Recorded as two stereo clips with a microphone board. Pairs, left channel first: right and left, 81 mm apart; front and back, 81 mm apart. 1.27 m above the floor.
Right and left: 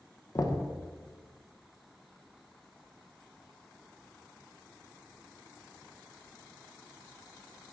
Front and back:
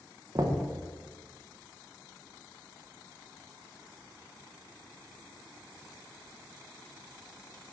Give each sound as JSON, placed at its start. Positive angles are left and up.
{"t": 0.3, "sound": "knocking", "azimuth_deg": -135, "distance_m": 0.7}